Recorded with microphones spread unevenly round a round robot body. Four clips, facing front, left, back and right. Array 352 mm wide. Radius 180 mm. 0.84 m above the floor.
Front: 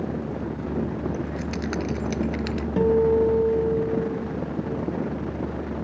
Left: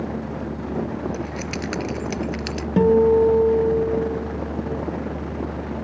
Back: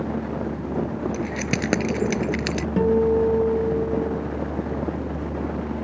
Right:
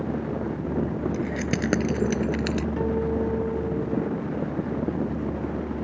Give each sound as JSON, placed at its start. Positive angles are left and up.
{"t": 1.1, "sound": "keys jangling", "azimuth_deg": -140}
{"t": 2.8, "sound": "a guitar", "azimuth_deg": 100}